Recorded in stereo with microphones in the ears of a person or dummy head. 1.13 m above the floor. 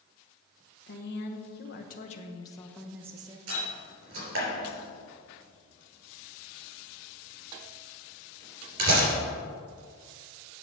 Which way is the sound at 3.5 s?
75° right (ahead or behind).